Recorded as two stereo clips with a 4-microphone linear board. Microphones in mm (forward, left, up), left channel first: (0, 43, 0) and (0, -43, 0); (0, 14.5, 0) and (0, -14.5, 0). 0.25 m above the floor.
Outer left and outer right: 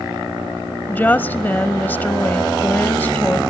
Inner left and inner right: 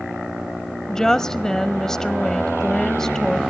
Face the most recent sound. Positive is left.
turn(degrees=20)  # may be behind; listen again after turning